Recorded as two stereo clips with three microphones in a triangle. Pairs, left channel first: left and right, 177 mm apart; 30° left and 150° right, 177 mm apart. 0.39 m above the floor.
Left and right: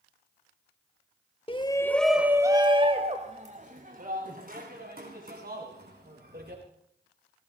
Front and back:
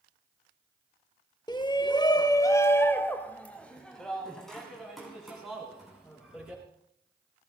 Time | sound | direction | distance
1.5 | a shout | 70° left | 1.0 m